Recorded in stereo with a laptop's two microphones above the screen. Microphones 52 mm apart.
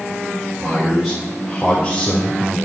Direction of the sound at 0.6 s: 5° right (ahead or behind).